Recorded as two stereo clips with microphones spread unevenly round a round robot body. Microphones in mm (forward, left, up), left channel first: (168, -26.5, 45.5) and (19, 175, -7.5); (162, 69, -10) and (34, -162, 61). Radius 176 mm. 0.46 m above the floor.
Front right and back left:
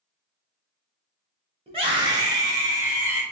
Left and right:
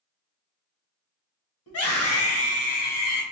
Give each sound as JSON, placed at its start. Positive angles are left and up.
{"t": 1.7, "sound": "a scream", "azimuth_deg": 65, "distance_m": 2.0}